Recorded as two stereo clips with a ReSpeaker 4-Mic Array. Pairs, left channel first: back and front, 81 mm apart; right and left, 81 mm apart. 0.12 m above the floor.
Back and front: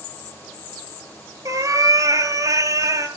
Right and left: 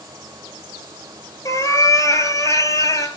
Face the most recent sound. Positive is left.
turn(degrees=-45)